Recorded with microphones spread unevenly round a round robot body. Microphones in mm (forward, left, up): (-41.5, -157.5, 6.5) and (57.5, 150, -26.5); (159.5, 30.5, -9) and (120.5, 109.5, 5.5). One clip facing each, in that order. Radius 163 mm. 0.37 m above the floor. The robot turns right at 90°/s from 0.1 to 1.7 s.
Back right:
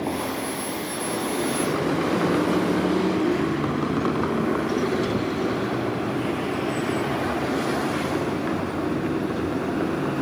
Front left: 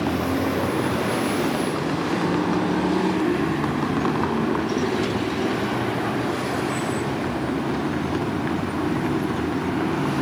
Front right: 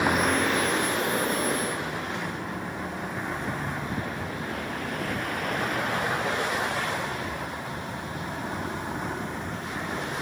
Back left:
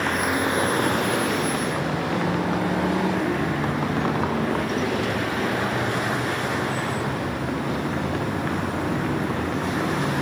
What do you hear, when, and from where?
0.0 s a vehicle: 15° left; by 10.2 s 145° left